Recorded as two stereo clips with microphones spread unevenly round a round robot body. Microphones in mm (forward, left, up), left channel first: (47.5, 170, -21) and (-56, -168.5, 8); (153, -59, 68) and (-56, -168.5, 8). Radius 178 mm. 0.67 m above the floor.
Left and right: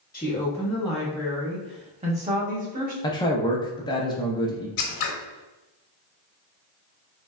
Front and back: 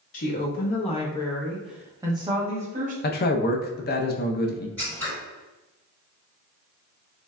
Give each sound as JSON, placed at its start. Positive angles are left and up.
{"t": 0.1, "sound": "a woman speaking", "azimuth_deg": 5, "distance_m": 1.0}
{"t": 3.0, "sound": "a man speaking", "azimuth_deg": 25, "distance_m": 0.5}
{"t": 4.8, "sound": "scissors", "azimuth_deg": 110, "distance_m": 0.7}